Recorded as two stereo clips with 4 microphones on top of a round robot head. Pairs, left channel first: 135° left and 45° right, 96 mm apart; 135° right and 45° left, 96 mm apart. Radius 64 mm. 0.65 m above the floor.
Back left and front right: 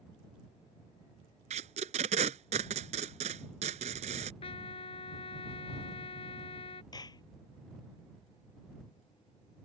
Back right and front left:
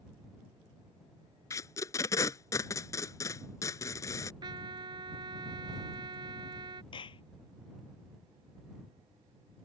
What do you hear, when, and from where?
1.5 s tape being pulled: 70° right
4.4 s a trumpet: 95° left
6.9 s a clap: 175° right